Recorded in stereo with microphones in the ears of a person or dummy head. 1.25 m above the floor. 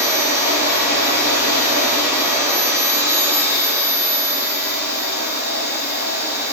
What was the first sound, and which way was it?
A machine running, 60° right (ahead or behind).